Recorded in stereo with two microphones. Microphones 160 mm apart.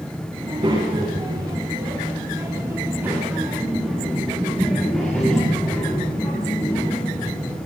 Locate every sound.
0.4 s a child speaking: 30° right (ahead or behind), 8 m; by 7.6 s 25° left (ahead or behind), 7.5 m